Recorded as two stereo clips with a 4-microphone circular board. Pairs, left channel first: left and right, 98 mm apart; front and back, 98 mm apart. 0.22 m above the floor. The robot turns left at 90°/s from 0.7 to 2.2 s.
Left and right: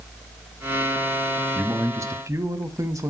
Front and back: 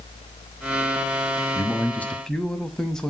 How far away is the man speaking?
About 1.4 m.